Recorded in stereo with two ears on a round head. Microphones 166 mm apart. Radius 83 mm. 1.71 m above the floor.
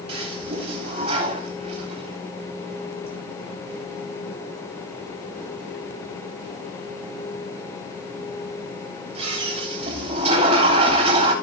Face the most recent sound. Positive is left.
turn(degrees=-35)  # may be behind; listen again after turning